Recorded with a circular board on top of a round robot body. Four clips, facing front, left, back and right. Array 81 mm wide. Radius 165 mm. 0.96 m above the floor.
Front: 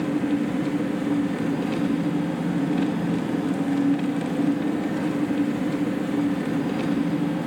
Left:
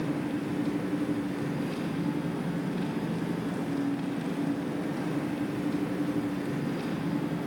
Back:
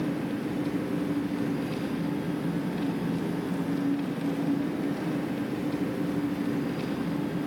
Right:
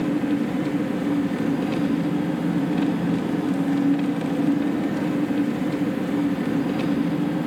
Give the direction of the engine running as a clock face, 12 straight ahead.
2 o'clock.